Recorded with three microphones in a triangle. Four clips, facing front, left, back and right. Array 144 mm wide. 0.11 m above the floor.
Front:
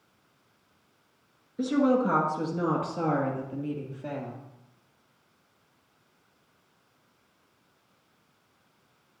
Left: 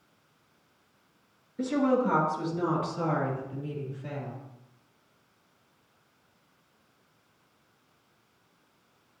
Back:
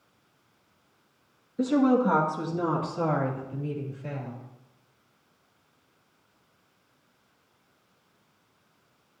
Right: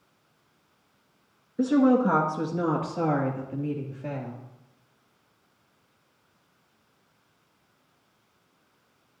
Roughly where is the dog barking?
No dog barking in this recording.